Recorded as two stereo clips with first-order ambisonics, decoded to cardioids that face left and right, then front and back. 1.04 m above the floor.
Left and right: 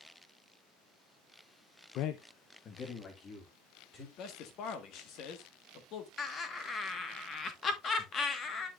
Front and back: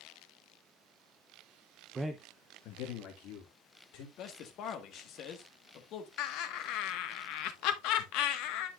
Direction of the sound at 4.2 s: 45° left.